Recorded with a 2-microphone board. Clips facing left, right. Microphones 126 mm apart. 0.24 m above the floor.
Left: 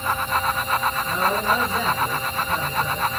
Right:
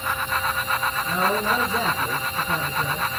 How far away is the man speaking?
About 3.5 m.